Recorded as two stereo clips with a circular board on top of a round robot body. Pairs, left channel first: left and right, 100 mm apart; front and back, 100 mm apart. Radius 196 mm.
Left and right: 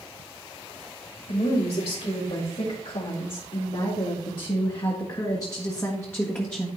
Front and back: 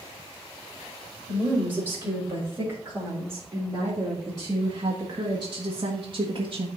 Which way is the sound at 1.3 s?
110° left.